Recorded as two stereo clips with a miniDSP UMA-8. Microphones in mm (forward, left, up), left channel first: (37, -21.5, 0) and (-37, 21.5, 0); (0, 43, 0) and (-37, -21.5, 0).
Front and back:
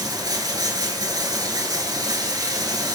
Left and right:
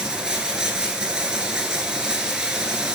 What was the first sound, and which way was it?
Running water, 165° left.